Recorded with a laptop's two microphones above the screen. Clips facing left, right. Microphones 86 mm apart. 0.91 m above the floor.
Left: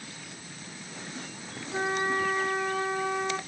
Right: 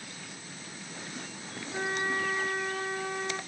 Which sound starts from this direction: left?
A flute, at 1.7 s.